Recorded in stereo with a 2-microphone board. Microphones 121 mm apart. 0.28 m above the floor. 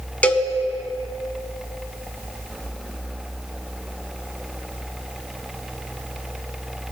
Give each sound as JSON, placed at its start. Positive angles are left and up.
{"t": 0.2, "sound": "a cowbell", "side_deg": 15, "distance_m": 0.6}